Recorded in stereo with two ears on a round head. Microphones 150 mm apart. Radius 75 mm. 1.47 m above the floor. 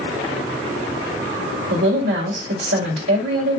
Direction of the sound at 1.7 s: 75° right (ahead or behind).